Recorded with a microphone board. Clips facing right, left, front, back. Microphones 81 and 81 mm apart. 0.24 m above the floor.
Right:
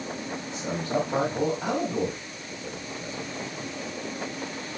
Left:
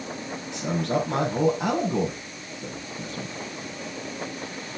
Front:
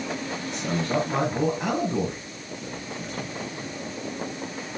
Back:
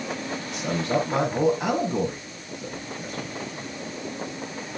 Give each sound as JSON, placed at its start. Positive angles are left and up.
{"t": 0.5, "sound": "a man speaking", "azimuth_deg": 95, "distance_m": 6.0}